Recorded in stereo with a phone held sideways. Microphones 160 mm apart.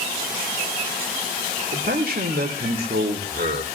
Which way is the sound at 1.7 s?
70° right (ahead or behind).